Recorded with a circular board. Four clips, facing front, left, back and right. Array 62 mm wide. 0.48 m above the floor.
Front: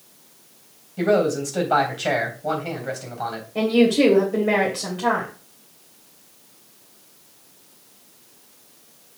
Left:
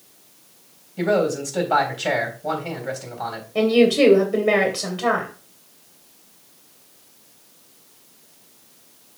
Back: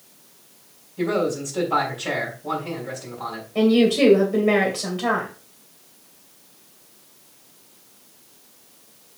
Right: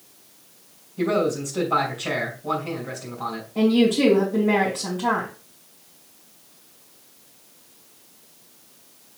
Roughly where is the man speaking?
Ahead left.